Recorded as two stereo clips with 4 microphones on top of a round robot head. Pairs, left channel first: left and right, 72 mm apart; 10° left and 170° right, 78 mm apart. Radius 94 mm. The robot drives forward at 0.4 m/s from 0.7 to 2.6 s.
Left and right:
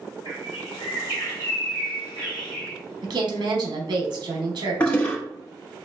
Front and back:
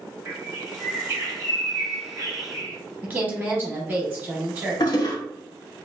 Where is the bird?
135° left, 1.1 m; by 2.8 s 155° left, 1.6 m.